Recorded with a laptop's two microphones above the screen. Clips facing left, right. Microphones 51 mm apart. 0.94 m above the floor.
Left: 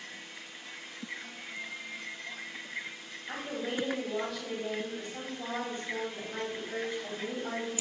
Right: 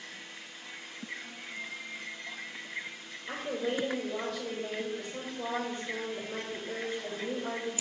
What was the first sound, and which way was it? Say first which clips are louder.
A woman speaking: right 3 dB; 40° right (ahead or behind).